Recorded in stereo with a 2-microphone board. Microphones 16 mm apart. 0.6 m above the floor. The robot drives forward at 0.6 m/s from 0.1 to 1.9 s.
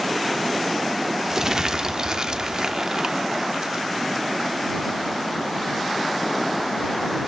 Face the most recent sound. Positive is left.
turn(degrees=-50)  # may be behind; listen again after turning